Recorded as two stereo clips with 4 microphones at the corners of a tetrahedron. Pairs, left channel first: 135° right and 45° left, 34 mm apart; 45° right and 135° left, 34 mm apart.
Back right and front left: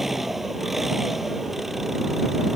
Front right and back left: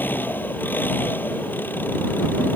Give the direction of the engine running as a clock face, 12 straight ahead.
1 o'clock.